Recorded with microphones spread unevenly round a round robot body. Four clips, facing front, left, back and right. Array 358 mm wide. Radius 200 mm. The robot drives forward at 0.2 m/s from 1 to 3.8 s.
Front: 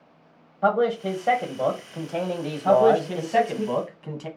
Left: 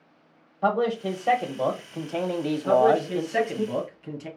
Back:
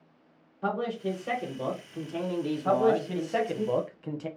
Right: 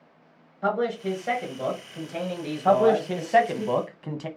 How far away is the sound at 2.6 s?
About 1.1 m.